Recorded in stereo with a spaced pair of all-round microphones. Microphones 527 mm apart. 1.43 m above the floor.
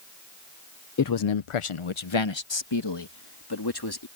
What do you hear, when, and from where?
1.0 s a man speaking: 35° left (ahead or behind); by 4.1 s 45° left (ahead or behind)